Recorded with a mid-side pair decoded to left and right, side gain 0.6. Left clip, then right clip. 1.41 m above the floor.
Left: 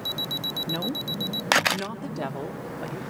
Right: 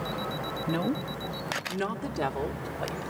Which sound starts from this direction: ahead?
A woman speaking, at 0.7 s.